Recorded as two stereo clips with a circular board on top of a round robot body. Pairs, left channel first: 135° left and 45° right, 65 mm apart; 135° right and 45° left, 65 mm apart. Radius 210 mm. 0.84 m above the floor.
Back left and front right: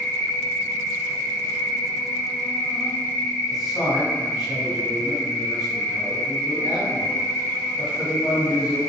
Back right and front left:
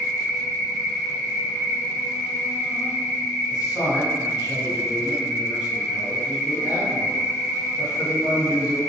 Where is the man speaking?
125° right, 1.8 m.